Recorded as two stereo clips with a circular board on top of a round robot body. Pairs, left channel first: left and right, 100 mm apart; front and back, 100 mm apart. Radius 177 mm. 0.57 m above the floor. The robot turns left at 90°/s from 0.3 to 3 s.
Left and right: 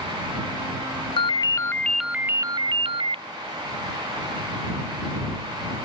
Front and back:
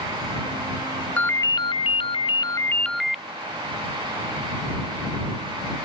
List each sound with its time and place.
1.2 s a ringtone: 75° left; by 3.2 s 90° right